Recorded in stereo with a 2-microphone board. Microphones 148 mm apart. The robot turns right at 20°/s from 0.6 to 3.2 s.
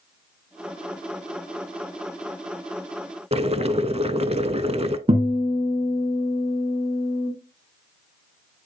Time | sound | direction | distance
3.3 | boiling | 45° right (ahead or behind) | 0.6 m
5.1 | a guitar | 40° right (ahead or behind) | 1.5 m